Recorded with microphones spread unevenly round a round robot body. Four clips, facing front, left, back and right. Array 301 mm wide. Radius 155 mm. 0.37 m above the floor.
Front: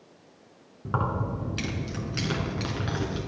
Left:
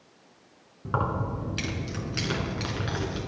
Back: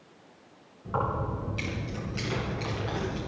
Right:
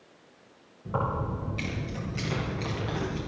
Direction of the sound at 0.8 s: 45° left.